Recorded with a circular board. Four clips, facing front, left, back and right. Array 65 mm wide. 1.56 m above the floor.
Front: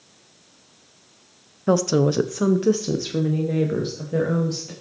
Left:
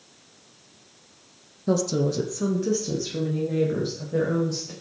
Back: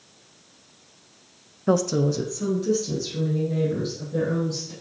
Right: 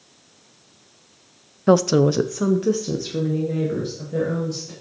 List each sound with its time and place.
1.7 s a woman speaking: 85° right, 0.5 m; by 4.7 s straight ahead, 2.5 m